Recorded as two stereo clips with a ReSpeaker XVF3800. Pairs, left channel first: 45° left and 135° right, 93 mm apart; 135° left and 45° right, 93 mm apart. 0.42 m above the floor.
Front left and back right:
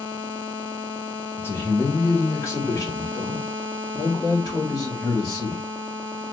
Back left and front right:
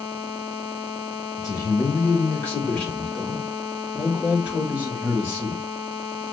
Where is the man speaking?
100° left, 2.0 m; by 5.6 s 5° left, 2.5 m.